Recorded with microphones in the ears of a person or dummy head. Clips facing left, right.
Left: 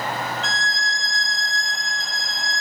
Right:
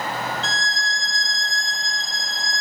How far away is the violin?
About 0.8 m.